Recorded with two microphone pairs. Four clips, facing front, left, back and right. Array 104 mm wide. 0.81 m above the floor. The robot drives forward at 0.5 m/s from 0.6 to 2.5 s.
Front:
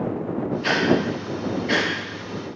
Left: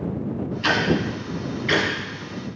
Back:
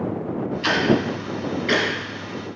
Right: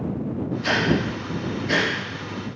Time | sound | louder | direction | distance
0.6 | ticking | left 1 dB, back 1 dB | 130° left | 2.5 m